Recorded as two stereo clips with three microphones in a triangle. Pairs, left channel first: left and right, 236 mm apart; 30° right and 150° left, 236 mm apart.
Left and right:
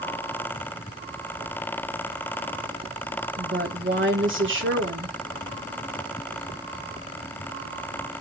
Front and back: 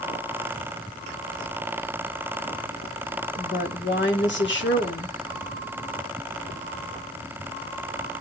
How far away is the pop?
I don't hear a pop.